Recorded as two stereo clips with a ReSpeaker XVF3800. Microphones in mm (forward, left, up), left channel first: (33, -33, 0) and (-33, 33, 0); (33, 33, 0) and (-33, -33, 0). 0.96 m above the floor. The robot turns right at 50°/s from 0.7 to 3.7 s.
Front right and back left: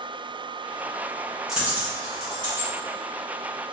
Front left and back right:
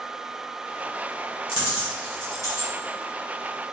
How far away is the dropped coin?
About 1.7 m.